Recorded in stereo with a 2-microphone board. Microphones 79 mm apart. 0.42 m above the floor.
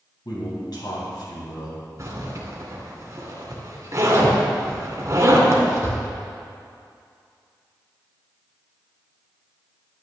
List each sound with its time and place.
0.2 s a man speaking: 60° left (ahead or behind), 3.5 m
2.0 s a zipper: 40° right (ahead or behind), 2 m